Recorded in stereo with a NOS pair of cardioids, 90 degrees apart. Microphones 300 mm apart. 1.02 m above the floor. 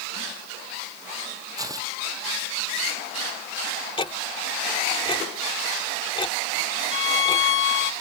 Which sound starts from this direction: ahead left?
A violin, at 6.9 s.